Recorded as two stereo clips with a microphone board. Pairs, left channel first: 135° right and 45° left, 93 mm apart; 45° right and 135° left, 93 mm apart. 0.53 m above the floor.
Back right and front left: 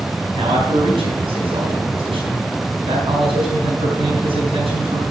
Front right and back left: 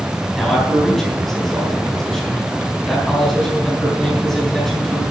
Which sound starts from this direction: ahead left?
A man speaking, at 0.3 s.